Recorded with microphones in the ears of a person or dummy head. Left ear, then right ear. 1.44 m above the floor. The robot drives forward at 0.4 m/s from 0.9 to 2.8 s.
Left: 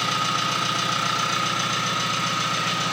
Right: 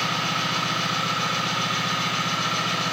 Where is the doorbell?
No doorbell in this recording.